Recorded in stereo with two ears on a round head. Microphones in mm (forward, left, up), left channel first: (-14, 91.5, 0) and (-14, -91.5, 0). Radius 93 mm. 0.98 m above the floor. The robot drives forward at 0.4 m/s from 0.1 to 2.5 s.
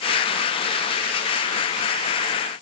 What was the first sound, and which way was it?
Only background noise.